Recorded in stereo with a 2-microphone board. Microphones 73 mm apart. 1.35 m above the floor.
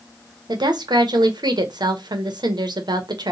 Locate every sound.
0.5 s a woman speaking: 75° right (ahead or behind), 0.6 m